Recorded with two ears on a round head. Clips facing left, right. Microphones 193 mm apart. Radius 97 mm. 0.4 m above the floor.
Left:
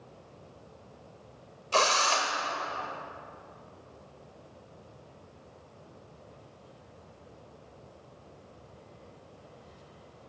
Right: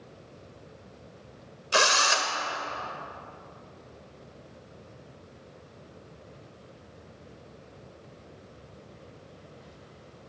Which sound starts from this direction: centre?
A drill, at 1.7 s.